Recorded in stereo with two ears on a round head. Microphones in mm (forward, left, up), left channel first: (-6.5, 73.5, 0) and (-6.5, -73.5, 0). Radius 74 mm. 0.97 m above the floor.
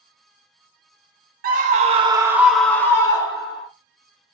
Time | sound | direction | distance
1.4 | a scream | 55° right (ahead or behind) | 0.7 m